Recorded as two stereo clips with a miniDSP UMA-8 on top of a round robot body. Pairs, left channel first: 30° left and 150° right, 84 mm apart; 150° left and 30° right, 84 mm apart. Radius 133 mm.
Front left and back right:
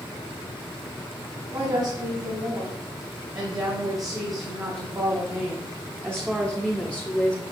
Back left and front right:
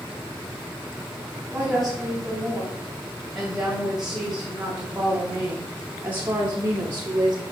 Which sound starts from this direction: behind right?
A woman speaking, at 1.5 s.